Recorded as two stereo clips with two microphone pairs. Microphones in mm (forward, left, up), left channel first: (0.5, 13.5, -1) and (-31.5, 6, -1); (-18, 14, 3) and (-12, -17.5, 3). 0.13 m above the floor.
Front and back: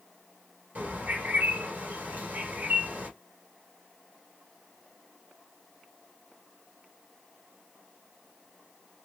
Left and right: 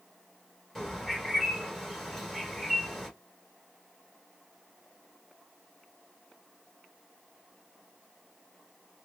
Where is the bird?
Straight behind, 1.3 m.